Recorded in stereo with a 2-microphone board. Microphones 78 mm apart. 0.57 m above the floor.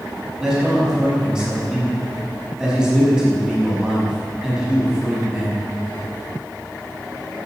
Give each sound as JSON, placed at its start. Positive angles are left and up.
{"t": 0.4, "sound": "a man speaking", "side_deg": -10, "distance_m": 5.0}